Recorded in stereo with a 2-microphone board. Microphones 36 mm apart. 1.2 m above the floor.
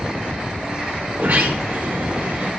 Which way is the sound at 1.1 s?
60° right (ahead or behind).